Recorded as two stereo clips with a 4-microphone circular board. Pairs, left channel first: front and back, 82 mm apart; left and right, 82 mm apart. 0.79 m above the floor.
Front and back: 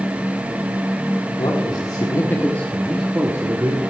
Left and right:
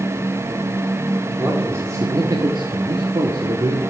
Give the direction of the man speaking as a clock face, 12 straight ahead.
1 o'clock.